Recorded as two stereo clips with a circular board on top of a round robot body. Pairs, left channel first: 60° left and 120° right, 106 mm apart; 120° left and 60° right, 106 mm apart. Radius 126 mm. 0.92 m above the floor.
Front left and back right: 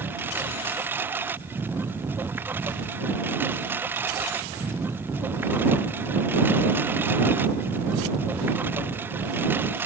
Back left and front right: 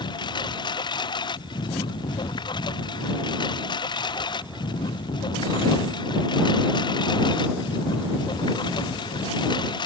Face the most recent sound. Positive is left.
turn(degrees=165)